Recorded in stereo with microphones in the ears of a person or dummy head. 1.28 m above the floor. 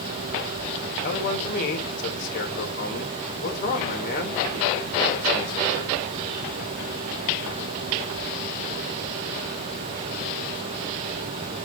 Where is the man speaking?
50° left (ahead or behind), 4 m.